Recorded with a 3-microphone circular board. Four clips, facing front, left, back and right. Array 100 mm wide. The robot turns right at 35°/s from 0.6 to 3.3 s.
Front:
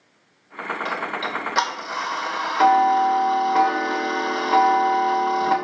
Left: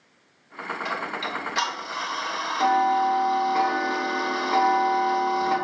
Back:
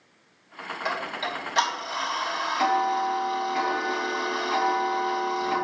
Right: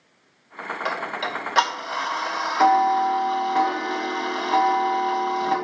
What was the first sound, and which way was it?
Ticking, 90° right.